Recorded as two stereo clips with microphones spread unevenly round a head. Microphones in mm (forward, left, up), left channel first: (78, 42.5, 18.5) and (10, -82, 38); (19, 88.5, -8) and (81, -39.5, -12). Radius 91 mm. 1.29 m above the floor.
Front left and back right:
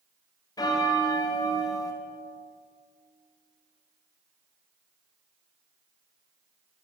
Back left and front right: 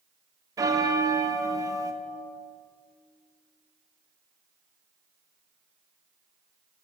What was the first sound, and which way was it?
A bell, 5° right.